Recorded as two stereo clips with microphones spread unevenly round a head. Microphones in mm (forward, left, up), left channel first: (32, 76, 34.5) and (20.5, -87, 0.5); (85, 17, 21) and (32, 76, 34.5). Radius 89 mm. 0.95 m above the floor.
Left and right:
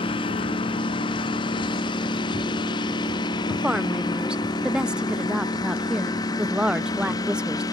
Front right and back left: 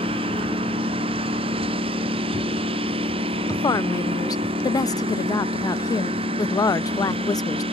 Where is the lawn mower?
150° left; by 7.7 s 155° left.